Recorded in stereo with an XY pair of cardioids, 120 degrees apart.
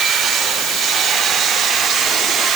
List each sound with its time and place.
Only background noise.